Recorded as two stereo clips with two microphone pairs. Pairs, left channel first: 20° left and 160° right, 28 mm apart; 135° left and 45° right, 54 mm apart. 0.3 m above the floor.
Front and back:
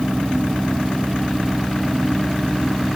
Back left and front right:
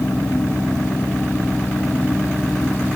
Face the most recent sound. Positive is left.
No sound to turn to.